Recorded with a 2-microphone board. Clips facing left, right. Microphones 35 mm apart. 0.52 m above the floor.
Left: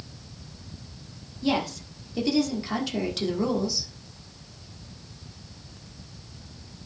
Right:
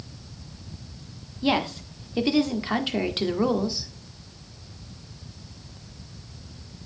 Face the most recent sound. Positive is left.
turn(degrees=-35)  # may be behind; listen again after turning